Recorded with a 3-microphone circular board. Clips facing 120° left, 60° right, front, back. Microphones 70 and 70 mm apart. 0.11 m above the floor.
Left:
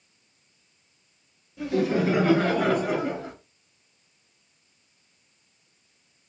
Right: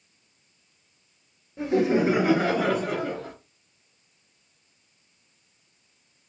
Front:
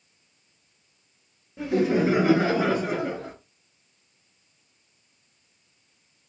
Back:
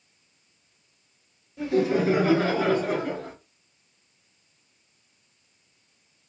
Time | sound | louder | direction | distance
1.6 | laughter | right 2 dB, front 1 dB | 40° right | 1.3 m